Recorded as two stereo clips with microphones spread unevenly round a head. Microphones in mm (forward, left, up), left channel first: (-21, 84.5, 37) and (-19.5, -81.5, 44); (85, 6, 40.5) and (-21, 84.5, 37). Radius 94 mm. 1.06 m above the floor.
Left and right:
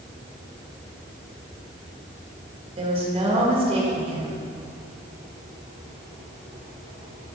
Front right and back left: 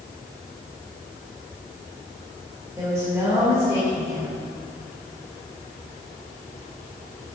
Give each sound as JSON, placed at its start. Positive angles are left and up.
{"t": 2.8, "sound": "a woman speaking", "azimuth_deg": -145, "distance_m": 1.9}